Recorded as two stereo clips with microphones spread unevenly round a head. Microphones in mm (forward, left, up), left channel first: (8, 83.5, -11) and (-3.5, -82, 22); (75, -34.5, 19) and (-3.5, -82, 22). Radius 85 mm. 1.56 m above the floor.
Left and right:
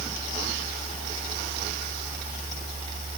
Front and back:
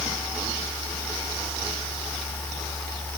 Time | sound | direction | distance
0.0 | a fan | 40° right | ?